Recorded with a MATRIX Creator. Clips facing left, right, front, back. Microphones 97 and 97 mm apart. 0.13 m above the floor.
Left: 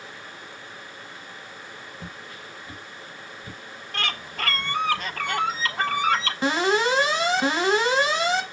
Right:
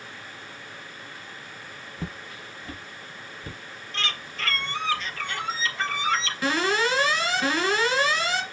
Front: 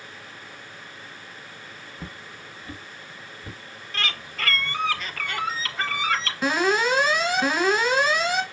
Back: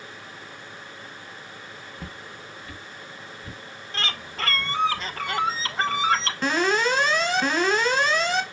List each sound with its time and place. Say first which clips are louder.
2.0 s footsteps: right 2 dB, even; 80° right, 0.7 m; by 3.6 s 50° right, 1.7 m
3.9 s a bird: left 3 dB, even; 125° left, 0.5 m
6.4 s an alarm: left 3 dB, front 2 dB; 75° left, 0.9 m